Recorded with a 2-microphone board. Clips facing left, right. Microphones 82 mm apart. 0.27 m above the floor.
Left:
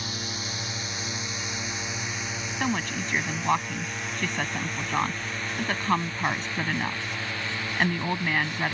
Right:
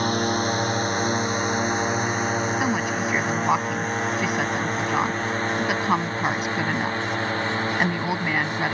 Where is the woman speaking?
10° right (ahead or behind).